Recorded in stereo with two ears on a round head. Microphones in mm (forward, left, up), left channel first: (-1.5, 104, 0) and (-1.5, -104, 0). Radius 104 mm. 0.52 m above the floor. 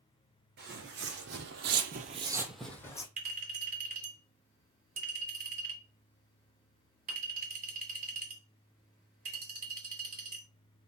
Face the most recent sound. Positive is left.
turn(degrees=-35)  # may be behind; listen again after turning